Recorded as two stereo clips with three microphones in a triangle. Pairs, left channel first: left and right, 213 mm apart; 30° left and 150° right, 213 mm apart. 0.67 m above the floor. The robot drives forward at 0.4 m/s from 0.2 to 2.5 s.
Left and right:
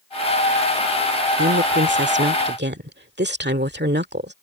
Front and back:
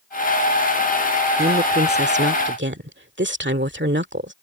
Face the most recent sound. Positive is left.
turn(degrees=-125)